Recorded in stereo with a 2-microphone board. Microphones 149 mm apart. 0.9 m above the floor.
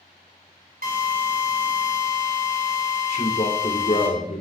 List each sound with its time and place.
0.8 s a drill: 75° right (ahead or behind), 4.5 m
3.1 s a man speaking: 55° left (ahead or behind), 3.5 m